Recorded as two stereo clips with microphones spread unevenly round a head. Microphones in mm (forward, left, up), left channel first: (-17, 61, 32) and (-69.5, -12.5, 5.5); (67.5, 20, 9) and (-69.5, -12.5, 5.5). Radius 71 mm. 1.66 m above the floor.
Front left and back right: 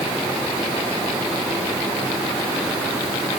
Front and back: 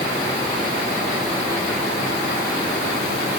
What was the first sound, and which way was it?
Only background noise.